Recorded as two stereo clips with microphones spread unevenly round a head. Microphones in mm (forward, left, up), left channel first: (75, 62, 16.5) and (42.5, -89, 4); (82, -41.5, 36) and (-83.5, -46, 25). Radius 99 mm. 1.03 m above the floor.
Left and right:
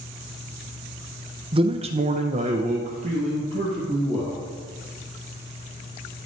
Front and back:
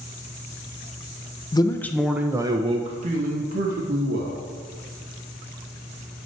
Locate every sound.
1.5 s a man speaking: 60° right, 0.7 m; by 4.4 s 160° right, 1.4 m